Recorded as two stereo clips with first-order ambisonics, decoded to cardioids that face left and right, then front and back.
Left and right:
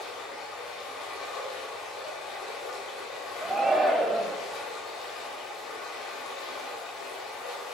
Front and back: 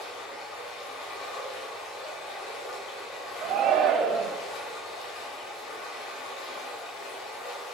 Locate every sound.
0.0 s running water: 40° left, 2 m
3.4 s a shout: 165° right, 0.6 m